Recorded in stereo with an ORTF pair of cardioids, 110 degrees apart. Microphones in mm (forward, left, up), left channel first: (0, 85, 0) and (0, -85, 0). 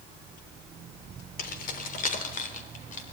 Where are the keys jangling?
55° left, 3.5 m; by 3.1 s 45° left, 4 m.